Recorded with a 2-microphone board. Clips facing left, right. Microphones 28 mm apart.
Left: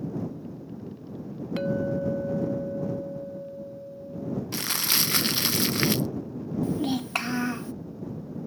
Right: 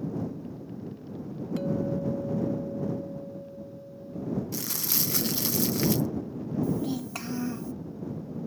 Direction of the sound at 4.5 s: 50° left (ahead or behind).